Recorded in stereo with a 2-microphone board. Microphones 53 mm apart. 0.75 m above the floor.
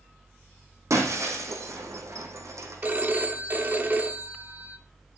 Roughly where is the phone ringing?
Right.